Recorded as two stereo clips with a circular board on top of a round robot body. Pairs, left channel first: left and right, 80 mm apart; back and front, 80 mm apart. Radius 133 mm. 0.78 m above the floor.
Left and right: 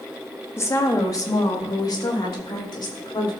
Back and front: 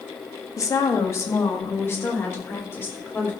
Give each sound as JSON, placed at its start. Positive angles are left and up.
{"t": 0.6, "sound": "a woman speaking", "azimuth_deg": 140, "distance_m": 1.7}